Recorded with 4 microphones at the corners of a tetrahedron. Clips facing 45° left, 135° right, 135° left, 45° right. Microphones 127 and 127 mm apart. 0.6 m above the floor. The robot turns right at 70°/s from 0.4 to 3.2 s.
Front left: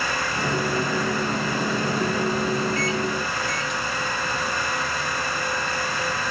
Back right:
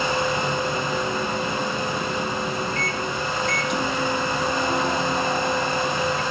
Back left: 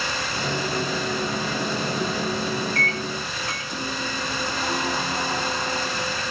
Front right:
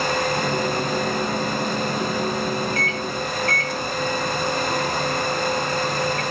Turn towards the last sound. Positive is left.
turn(degrees=-150)